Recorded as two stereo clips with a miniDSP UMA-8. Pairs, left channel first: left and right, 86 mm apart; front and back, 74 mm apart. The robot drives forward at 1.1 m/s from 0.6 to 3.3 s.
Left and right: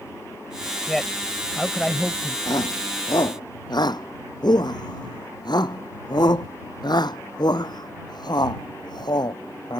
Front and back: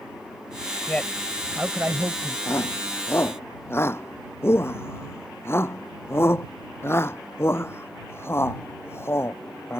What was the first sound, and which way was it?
A man speaking, 10° left.